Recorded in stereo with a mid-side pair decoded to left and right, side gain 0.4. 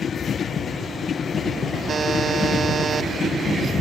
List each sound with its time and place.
1.9 s a buzzer: 55° right, 1.8 m